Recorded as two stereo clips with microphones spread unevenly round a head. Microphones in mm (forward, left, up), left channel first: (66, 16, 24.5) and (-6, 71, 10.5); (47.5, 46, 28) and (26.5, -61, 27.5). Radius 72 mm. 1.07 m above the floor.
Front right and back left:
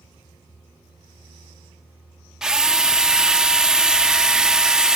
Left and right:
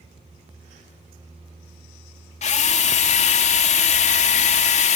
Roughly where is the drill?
Ahead left.